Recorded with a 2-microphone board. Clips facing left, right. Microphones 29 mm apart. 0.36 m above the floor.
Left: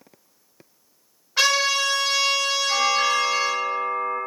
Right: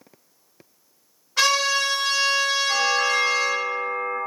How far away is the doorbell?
About 1.6 m.